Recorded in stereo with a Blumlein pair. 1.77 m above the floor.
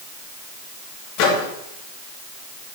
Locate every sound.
1.2 s a microwave: 45° left, 2.5 m